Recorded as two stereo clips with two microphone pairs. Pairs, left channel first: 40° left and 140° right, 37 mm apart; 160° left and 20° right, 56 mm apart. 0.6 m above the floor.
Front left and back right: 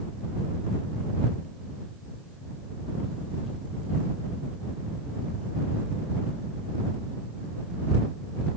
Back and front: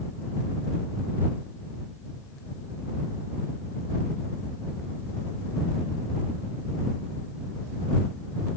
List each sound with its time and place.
Only background noise.